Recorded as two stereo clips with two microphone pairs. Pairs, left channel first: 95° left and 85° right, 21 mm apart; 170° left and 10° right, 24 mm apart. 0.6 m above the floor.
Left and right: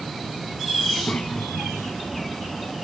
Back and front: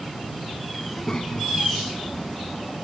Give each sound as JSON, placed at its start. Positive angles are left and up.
{"t": 0.9, "sound": "a child speaking", "azimuth_deg": 110}